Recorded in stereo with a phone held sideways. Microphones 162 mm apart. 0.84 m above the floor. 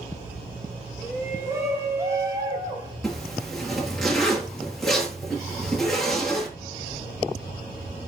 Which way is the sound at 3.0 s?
5° left (ahead or behind).